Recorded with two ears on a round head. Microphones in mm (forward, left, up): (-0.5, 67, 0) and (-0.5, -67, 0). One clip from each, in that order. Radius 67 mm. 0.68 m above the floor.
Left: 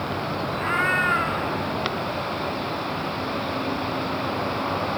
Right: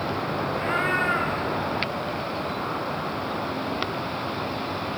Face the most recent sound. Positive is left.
turn(degrees=15)  # may be behind; listen again after turning